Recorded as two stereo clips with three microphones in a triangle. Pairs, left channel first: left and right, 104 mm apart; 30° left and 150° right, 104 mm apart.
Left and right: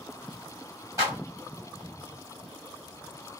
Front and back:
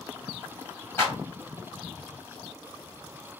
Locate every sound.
1.0 s a clap: 35° right, 2 m